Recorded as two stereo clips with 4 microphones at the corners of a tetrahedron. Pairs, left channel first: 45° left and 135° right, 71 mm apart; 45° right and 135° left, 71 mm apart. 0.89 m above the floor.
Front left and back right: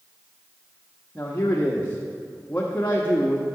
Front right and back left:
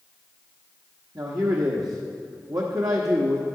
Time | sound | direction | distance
1.1 | a man speaking | 105° left | 1.1 m